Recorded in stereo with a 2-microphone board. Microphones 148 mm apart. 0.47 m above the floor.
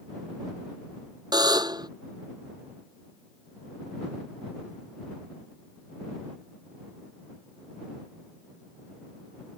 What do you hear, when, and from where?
1.3 s a buzzer: 25° right (ahead or behind)